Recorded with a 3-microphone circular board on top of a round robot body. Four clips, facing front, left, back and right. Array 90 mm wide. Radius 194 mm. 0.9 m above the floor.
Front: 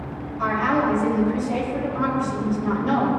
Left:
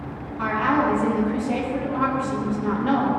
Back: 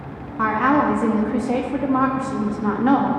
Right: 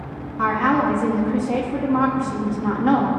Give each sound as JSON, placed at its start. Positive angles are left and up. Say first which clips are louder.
{"t": 0.4, "sound": "a woman speaking", "louder": "right 2 dB, back 4 dB", "azimuth_deg": -165, "distance_m": 1.6}